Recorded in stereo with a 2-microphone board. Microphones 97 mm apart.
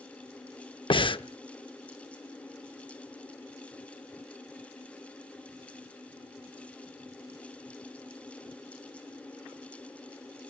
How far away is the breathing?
About 0.6 m.